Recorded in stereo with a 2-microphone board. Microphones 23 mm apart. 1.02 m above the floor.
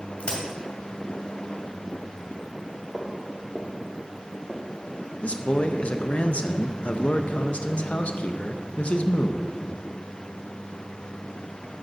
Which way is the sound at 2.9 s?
35° right (ahead or behind).